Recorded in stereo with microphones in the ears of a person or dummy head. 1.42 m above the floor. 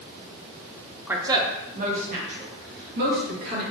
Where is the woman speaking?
5° right (ahead or behind), 0.6 m; by 3.6 s 60° right (ahead or behind), 2.5 m.